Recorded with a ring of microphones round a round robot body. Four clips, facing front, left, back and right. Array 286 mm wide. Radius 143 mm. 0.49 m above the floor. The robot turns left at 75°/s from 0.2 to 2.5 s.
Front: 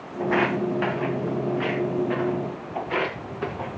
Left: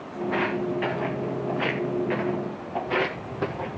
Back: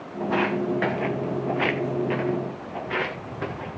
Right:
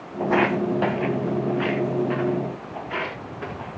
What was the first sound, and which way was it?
Footsteps, 65° right.